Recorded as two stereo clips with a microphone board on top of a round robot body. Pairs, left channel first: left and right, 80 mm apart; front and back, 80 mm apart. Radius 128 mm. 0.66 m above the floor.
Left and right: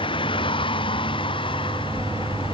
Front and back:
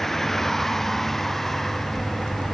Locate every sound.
0.0 s a vehicle: 85° left; by 2.5 s 90° left